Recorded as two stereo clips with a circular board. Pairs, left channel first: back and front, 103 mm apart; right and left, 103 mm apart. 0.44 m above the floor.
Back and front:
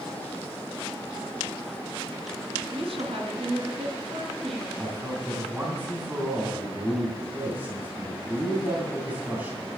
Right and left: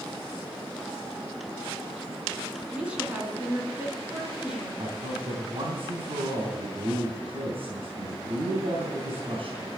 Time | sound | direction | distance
2.7 | a woman speaking | 10° left | 3 m
4.8 | a man speaking | 75° left | 3 m